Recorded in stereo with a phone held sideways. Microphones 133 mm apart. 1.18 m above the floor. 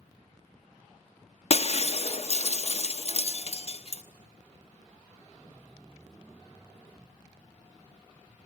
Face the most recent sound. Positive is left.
turn(degrees=50)  # may be behind; listen again after turning